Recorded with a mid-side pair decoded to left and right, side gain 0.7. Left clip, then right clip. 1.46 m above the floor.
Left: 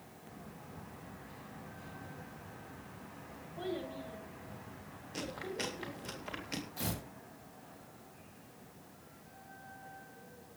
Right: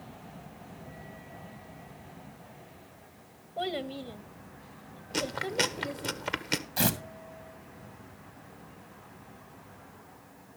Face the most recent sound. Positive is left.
turn(degrees=-65)